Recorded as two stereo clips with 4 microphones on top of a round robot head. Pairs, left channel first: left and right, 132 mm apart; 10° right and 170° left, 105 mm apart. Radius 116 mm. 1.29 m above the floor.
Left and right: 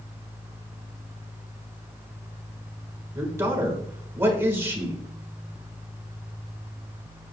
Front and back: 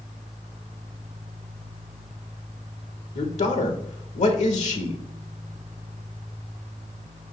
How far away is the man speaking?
About 1.6 m.